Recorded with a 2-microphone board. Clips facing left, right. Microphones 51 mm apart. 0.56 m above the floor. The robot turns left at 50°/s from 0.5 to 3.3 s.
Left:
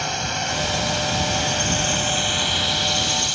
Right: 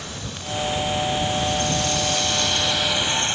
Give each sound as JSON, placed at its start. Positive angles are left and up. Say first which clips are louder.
{"t": 0.0, "sound": "a drone", "louder": "left 9 dB", "azimuth_deg": 110}